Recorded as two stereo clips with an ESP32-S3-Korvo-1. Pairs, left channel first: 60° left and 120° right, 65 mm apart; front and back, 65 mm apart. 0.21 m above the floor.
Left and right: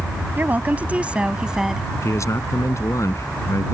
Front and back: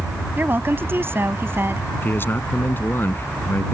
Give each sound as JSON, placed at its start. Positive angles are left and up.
{"t": 0.4, "sound": "a woman speaking", "azimuth_deg": -155}
{"t": 2.0, "sound": "a man speaking", "azimuth_deg": 45}